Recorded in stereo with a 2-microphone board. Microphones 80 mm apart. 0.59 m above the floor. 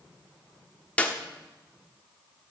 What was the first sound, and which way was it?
A clap, 20° left (ahead or behind).